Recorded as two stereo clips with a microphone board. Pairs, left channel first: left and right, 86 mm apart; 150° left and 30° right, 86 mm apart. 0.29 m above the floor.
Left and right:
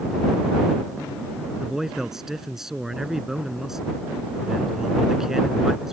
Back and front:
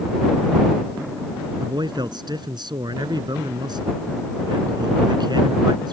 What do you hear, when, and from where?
1.6 s a man speaking: 5° right